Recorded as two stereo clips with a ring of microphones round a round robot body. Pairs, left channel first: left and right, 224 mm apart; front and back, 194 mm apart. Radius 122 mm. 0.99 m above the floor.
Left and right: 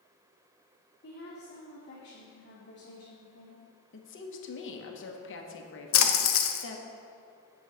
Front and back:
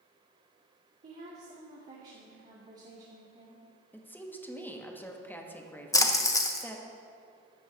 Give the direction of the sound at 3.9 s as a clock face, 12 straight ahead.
9 o'clock.